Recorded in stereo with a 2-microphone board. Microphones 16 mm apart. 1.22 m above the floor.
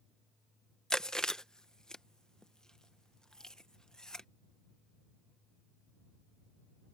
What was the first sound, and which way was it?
Chewing, 50° left (ahead or behind).